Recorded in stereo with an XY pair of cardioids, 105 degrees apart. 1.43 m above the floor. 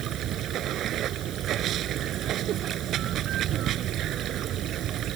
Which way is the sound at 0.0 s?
70° right.